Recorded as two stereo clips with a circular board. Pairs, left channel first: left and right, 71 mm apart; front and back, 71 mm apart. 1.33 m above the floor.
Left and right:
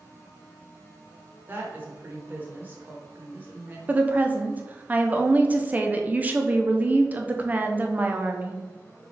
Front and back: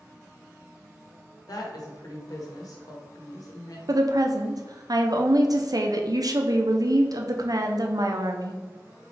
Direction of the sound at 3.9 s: 155° right.